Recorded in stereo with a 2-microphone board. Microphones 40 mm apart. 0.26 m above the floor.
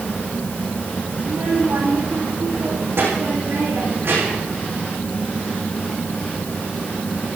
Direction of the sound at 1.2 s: 60° right (ahead or behind).